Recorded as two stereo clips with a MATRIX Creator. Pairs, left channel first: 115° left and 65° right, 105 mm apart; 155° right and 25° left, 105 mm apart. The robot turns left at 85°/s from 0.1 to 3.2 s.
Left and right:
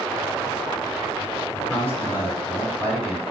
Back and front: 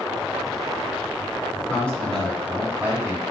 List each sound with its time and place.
1.7 s a man speaking: 160° left, 1.1 m; by 3.2 s 30° left, 1.1 m